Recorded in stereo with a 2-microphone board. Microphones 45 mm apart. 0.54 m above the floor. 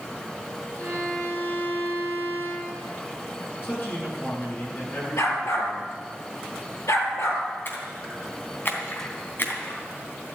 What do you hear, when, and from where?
0.8 s a violin: 35° left (ahead or behind), 5 m
3.6 s a man speaking: 45° left (ahead or behind), 7.5 m
5.2 s a dog barking: 90° left, 4 m
7.7 s a splash: 50° left (ahead or behind), 3 m